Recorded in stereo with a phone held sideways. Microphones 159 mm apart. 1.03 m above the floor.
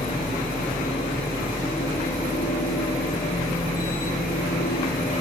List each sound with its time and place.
0.0 s a machine running: 60° left (ahead or behind), 1.2 m